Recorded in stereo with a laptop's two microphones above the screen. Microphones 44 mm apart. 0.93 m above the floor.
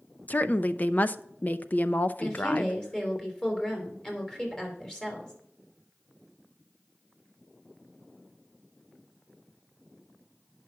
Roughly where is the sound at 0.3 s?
Left.